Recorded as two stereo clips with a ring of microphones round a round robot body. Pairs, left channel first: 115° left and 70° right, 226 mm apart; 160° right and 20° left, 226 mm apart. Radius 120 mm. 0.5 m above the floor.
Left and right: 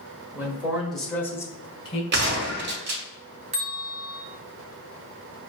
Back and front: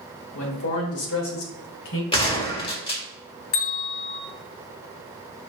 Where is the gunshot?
95° right, 1.5 m.